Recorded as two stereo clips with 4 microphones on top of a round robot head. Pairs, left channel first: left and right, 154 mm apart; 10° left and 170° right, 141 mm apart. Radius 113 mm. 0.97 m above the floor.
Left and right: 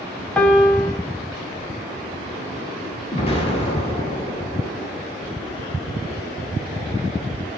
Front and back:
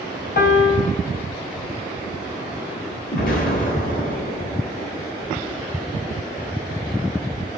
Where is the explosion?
35° left, 1.6 m.